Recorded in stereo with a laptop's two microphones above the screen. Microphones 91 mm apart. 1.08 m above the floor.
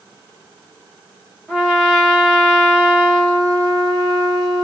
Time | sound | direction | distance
1.5 | a trumpet | centre (ahead or behind) | 1.4 m